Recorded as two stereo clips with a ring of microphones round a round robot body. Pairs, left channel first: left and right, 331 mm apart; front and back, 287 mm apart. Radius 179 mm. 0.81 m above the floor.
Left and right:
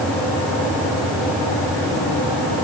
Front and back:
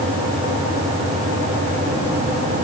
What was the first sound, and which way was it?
Only background noise.